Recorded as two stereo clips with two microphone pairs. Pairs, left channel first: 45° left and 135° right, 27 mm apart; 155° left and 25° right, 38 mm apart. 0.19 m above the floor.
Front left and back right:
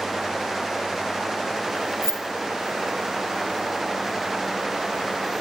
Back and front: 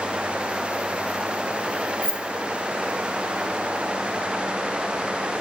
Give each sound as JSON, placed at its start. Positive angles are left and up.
{"t": 2.0, "sound": "keys jangling", "azimuth_deg": -5, "distance_m": 0.8}